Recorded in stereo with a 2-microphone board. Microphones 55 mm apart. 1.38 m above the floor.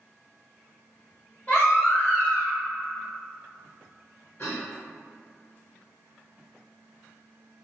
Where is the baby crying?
35° left (ahead or behind), 1.3 m.